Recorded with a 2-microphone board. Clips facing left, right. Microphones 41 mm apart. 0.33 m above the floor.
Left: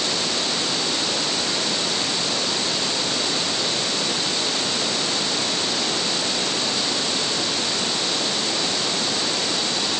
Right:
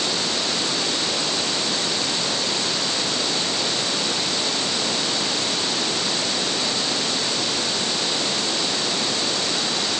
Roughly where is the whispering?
No whispering in this recording.